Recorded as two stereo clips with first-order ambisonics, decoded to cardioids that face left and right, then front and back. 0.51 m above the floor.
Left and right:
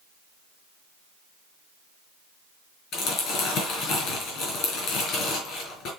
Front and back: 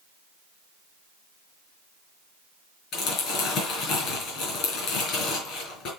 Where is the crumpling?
45° left, 3.5 m.